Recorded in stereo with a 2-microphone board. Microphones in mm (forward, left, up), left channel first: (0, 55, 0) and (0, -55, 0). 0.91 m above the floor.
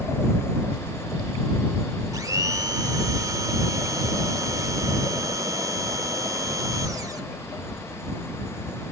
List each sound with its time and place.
2.1 s a blender: 35° right (ahead or behind)